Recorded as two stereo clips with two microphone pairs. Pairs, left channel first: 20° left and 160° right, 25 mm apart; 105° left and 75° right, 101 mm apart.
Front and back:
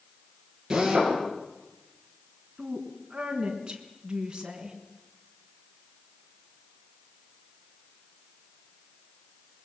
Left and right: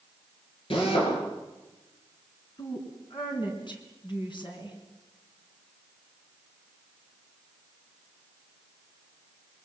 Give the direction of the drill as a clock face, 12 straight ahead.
8 o'clock.